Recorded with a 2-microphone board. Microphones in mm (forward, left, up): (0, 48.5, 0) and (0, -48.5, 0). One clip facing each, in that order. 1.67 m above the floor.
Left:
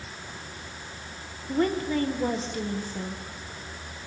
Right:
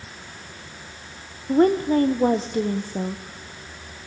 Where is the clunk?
I don't hear a clunk.